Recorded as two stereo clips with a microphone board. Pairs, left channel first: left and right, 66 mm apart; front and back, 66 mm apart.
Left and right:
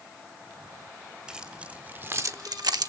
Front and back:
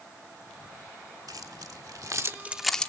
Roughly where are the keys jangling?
Behind.